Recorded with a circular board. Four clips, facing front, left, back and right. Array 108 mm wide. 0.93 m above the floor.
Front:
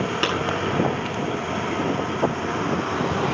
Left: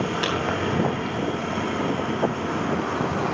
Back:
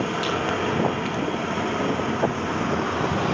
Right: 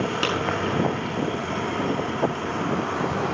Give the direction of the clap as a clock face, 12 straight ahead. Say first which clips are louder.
Right 3 dB, front 2 dB; 1 o'clock.